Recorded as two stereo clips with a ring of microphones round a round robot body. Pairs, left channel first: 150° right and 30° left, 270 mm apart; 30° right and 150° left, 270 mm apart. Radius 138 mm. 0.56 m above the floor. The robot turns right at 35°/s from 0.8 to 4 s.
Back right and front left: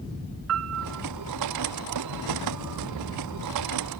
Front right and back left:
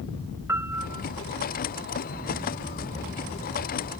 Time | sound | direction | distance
0.5 | a piano | 70° left | ?